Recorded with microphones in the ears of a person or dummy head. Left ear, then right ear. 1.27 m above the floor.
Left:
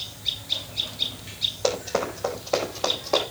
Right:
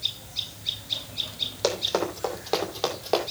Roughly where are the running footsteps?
Right.